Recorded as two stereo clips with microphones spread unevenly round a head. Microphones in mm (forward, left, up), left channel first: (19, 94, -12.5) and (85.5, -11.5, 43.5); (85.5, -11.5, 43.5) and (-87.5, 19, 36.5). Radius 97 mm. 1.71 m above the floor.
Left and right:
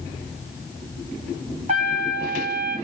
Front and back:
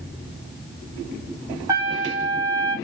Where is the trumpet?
115° right, 4 m.